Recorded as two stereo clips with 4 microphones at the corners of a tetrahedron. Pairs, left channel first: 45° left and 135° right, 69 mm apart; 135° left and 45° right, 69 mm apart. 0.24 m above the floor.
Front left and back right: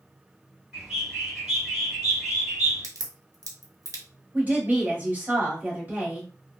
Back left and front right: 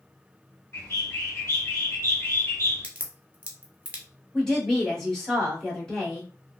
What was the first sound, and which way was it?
A bird, 145° left.